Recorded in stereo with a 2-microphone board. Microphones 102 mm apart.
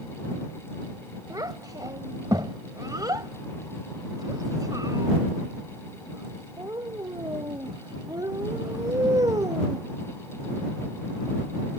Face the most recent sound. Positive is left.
turn(degrees=-40)  # may be behind; listen again after turning